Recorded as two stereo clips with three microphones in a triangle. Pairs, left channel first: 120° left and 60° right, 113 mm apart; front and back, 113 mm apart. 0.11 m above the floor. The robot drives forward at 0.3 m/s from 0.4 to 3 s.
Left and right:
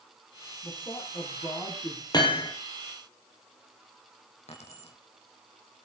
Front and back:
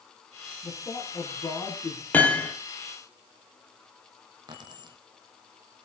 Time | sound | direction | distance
0.6 | a man speaking | 55° left | 5 m
2.1 | hammering | 75° left | 3.5 m
4.5 | keys jangling | 130° left | 3.5 m